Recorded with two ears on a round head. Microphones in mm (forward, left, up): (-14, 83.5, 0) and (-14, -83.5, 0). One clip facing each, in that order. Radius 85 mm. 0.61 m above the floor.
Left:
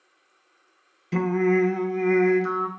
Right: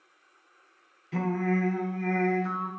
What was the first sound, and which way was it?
Singing, 50° left (ahead or behind).